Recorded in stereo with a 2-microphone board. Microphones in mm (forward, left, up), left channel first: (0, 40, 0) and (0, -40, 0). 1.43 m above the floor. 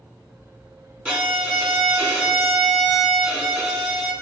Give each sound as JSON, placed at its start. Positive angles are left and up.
{"t": 1.1, "sound": "a violin", "side_deg": -15, "distance_m": 3.0}